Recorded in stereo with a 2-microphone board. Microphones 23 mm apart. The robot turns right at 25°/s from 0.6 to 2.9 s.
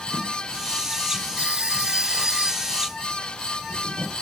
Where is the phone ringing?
70° right; by 2.8 s 30° right.